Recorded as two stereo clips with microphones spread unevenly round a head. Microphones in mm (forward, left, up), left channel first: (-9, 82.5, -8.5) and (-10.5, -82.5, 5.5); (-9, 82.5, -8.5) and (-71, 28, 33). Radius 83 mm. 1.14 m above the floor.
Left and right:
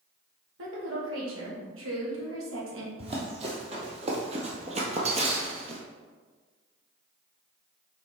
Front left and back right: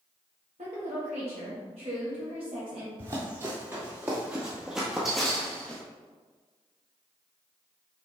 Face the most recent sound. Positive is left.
turn(degrees=-65)